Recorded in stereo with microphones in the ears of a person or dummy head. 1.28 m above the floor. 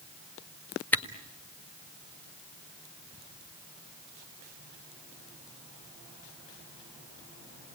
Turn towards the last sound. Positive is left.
turn(degrees=10)  # may be behind; listen again after turning